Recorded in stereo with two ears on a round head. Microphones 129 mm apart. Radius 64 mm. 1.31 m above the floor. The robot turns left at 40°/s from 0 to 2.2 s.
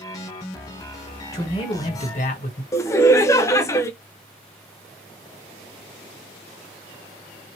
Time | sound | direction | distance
1.3 | a man speaking | 155° left | 1.4 m
2.7 | laughter | 20° left (ahead or behind) | 0.6 m